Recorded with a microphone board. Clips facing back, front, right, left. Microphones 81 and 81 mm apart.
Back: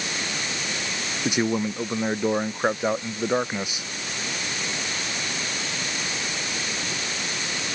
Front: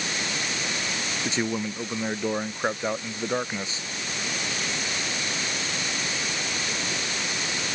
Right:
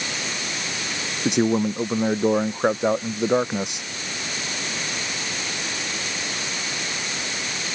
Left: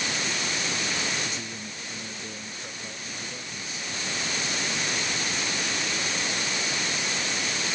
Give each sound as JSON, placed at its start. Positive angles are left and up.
{"t": 1.2, "sound": "a man speaking", "azimuth_deg": -105}